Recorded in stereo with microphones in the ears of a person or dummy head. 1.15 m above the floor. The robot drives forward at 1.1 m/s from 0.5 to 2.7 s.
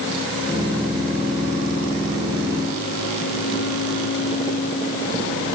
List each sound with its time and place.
Only background noise.